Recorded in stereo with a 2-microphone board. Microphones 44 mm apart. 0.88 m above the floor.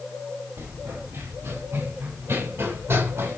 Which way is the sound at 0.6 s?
70° right (ahead or behind).